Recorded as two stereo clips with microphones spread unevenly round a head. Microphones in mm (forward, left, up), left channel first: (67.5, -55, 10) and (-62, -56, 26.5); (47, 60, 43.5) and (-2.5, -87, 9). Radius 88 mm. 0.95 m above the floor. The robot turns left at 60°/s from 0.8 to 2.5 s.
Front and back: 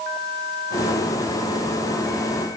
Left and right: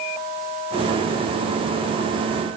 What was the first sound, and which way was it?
Only background noise.